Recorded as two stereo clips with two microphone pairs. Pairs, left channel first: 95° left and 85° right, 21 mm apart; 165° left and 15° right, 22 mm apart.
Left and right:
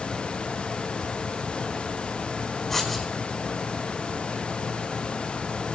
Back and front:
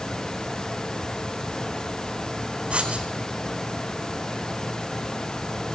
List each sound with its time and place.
2.7 s writing: 15° left, 4.5 m